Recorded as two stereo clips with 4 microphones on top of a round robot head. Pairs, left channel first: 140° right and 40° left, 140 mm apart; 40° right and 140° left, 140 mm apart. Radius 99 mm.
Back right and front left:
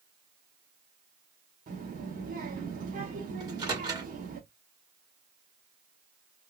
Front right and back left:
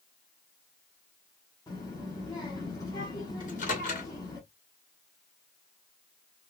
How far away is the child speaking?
About 1.0 m.